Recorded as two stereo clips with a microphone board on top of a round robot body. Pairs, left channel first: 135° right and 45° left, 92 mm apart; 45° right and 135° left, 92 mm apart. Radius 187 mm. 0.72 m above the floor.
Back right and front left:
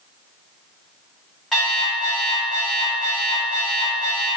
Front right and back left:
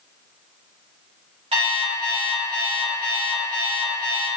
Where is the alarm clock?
135° left, 0.8 m.